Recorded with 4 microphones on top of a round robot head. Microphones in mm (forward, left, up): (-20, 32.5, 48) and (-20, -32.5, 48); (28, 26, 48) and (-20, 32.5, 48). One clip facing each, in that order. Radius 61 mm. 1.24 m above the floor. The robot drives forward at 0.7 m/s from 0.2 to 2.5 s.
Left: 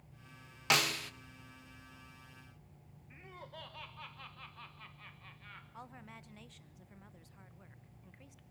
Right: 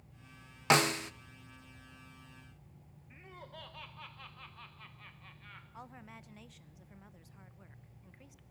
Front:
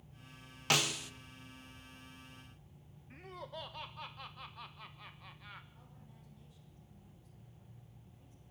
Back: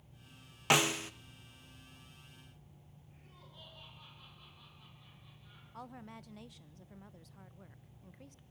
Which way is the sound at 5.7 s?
175° right.